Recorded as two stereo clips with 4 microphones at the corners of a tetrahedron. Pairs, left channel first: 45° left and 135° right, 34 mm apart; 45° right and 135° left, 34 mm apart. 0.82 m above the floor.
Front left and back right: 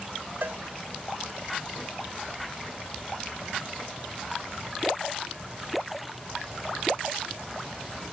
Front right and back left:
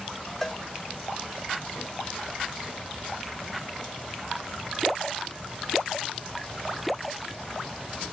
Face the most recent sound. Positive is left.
turn(degrees=-125)